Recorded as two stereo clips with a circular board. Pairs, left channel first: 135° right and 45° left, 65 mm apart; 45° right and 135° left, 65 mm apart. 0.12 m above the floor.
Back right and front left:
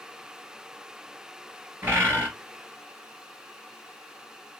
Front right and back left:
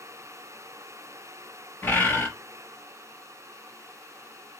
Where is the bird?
Straight ahead, 2 m.